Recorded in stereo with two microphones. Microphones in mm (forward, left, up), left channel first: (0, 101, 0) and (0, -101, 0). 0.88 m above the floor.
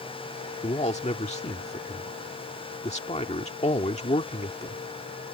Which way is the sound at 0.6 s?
35° left (ahead or behind).